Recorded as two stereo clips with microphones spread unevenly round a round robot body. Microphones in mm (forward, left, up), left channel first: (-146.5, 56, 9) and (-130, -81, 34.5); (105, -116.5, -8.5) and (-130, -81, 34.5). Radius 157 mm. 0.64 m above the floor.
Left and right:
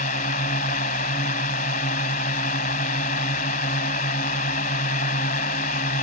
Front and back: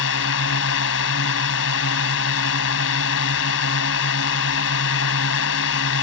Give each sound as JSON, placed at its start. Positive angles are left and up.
{"t": 0.0, "sound": "a drone", "azimuth_deg": 40}